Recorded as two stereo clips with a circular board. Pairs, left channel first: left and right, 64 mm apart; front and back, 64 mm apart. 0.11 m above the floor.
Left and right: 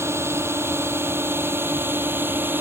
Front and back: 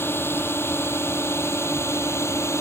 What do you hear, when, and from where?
0.0 s a drone: 50° right; by 2.6 s 35° right